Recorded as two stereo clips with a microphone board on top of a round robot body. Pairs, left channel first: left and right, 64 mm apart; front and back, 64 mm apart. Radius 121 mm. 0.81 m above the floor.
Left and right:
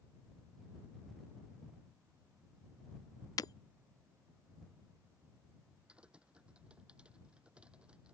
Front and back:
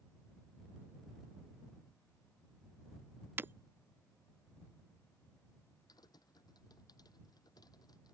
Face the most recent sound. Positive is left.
turn(degrees=-20)